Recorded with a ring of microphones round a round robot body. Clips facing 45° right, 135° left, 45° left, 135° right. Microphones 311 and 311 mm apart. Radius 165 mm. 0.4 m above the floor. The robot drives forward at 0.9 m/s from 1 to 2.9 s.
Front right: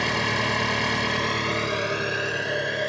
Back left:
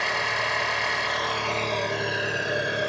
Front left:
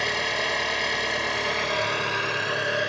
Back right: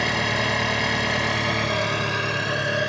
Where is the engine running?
100° right, 1.4 m; by 2.9 s 145° right, 2.5 m.